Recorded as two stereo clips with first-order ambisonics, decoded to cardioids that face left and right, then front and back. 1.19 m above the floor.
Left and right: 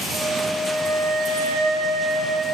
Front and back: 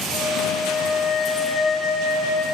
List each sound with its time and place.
0.1 s a flute: 45° right, 0.8 m